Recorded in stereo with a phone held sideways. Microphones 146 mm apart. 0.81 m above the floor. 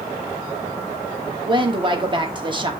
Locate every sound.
1.5 s a woman speaking: 30° right (ahead or behind), 1.3 m